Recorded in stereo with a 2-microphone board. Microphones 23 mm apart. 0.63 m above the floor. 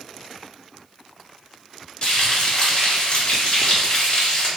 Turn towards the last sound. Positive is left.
turn(degrees=40)  # may be behind; listen again after turning